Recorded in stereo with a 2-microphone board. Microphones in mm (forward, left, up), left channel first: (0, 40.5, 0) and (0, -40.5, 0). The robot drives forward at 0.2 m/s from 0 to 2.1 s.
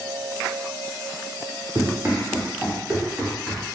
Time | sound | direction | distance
1.8 | running footsteps | 30° right (ahead or behind) | 1.3 m